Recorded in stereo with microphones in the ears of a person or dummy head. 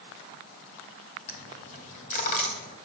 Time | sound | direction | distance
1.3 | a dropped coin | 40° left (ahead or behind) | 3 m